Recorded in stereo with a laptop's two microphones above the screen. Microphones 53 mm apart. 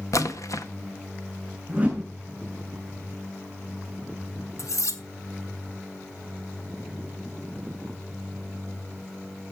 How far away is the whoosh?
About 6 m.